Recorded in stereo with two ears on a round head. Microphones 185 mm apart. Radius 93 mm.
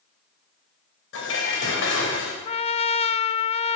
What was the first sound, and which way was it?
Dishes clattering, 65° left (ahead or behind).